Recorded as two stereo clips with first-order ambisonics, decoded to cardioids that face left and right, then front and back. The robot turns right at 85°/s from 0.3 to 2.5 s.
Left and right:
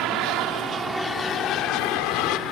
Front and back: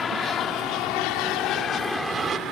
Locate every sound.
0.0 s an aircraft: 65° right; by 2.5 s 130° left